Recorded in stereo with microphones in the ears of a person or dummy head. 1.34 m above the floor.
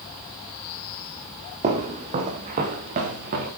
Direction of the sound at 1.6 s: 35° right (ahead or behind).